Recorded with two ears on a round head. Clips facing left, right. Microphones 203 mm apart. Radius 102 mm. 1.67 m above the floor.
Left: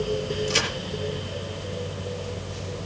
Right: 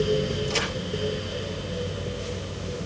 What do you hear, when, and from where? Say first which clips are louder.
0.5 s a crack: left 1 dB; 15° left (ahead or behind), 5.5 m